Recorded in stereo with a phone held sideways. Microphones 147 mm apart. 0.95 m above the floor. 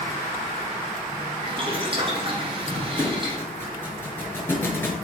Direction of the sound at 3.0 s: 15° left (ahead or behind).